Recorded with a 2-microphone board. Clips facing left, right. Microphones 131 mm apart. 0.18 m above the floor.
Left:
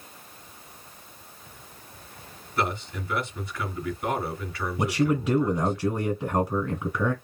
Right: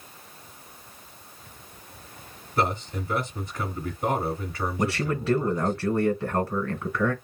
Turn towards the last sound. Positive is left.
turn(degrees=20)  # may be behind; listen again after turning